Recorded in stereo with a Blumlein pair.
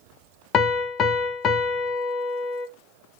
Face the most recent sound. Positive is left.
turn(degrees=25)